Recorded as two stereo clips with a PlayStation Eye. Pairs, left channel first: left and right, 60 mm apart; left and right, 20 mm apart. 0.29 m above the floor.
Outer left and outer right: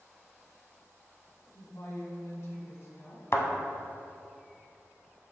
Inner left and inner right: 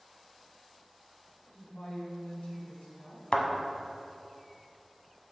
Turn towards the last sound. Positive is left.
turn(degrees=50)  # may be behind; listen again after turning